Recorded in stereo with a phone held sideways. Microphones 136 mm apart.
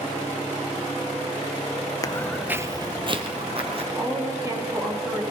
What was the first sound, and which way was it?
Footsteps, 30° left (ahead or behind).